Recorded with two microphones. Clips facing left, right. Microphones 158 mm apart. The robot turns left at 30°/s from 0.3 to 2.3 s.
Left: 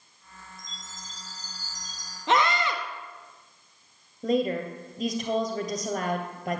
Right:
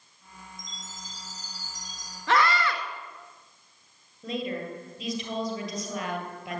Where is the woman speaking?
45° left (ahead or behind), 2 m.